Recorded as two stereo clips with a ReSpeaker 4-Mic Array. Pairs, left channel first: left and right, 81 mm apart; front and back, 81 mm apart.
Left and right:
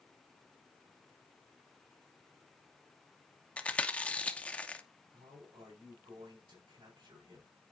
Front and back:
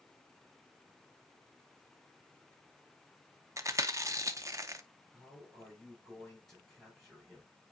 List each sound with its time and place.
3.6 s chewing: 155° left, 0.7 m
5.1 s a man speaking: 85° right, 5 m